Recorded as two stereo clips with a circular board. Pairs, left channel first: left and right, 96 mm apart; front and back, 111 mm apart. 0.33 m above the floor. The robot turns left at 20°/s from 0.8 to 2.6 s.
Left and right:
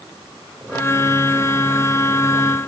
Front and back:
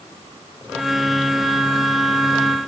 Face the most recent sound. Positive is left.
No sound to turn to.